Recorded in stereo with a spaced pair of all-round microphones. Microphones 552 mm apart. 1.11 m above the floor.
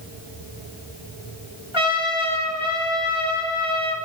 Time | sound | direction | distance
1.7 | a trumpet | 55° left (ahead or behind) | 5 m